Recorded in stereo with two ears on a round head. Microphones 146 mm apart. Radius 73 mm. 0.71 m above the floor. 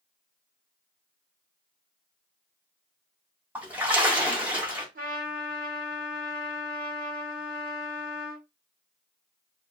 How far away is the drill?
I don't hear a drill.